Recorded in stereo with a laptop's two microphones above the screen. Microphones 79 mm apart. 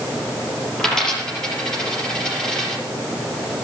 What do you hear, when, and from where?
0.8 s a dropped coin: 10° left (ahead or behind), 5 m